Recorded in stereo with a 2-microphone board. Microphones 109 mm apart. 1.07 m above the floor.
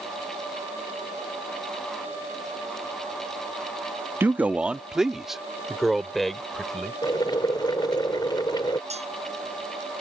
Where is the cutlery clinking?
80° right.